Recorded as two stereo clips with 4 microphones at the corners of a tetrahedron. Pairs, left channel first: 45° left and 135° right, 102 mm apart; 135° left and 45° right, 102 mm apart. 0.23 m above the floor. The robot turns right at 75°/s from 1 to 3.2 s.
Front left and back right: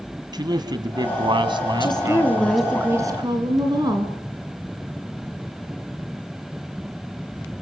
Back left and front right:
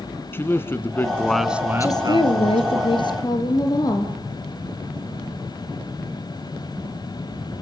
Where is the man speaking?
165° right, 1.8 m; by 2.8 s 30° right, 1.8 m.